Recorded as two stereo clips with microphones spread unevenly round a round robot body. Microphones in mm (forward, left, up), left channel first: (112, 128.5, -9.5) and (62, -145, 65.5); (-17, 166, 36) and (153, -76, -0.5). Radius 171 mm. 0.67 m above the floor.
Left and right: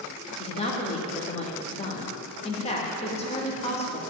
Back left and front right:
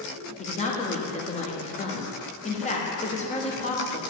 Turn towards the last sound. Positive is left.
turn(degrees=60)